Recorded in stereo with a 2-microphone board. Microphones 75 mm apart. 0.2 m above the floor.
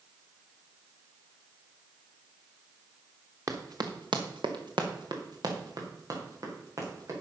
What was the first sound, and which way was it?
Running footsteps, 40° right (ahead or behind).